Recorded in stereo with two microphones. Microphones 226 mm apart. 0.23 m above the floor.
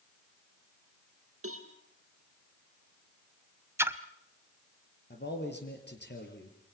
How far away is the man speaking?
About 4.5 m.